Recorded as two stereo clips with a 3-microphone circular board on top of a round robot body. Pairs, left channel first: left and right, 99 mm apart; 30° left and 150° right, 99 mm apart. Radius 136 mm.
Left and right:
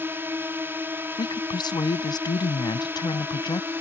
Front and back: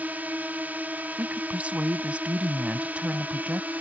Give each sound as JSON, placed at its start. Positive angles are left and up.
{"t": 0.0, "sound": "a drone", "azimuth_deg": -105}
{"t": 1.2, "sound": "a woman speaking", "azimuth_deg": 135}